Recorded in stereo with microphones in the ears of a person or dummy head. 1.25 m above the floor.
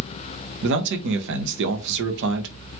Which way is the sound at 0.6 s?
60° right (ahead or behind).